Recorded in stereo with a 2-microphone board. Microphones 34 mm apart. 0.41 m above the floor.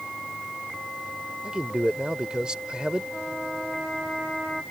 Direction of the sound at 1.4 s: 25° right (ahead or behind).